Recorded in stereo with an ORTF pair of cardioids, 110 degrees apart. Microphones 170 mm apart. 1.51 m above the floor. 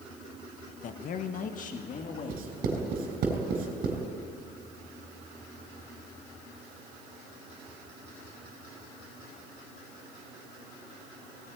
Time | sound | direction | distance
0.8 | a man speaking | 50° left | 1.1 m
2.3 | writing | 60° right | 4.5 m